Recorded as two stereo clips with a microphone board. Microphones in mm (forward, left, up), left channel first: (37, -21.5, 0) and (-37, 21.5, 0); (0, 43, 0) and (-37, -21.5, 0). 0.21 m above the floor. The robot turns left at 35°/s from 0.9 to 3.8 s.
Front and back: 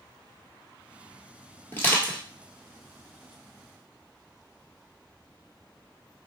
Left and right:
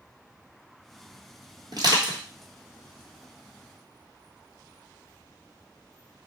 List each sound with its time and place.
1.7 s crushing: 90° right, 1.0 m; by 2.2 s 105° right, 1.0 m